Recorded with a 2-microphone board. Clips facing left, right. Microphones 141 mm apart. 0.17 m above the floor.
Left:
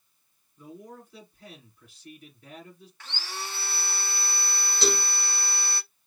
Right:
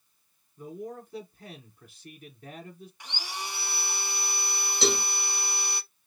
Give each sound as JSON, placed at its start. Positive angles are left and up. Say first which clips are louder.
{"t": 0.6, "sound": "a man speaking", "louder": "right 6 dB", "side_deg": -35, "distance_m": 1.7}
{"t": 3.0, "sound": "sawing", "louder": "even", "side_deg": -15, "distance_m": 0.6}
{"t": 4.8, "sound": "a cowbell", "louder": "right 1 dB", "side_deg": -15, "distance_m": 1.8}